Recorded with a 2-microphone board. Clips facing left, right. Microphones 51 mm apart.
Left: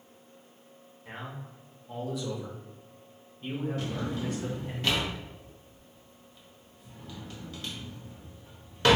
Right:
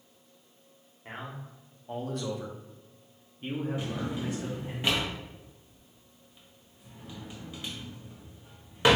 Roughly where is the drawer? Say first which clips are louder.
Even; centre.